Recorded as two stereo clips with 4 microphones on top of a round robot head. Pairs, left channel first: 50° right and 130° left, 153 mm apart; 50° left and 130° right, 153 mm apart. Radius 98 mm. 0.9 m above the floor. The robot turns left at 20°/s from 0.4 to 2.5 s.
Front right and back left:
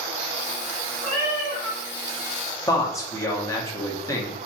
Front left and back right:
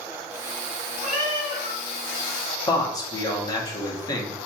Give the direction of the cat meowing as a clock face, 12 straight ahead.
2 o'clock.